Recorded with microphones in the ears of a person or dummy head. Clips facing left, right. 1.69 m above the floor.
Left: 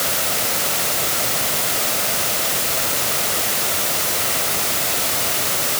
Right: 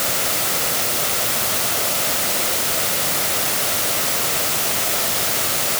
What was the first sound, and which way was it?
Only background noise.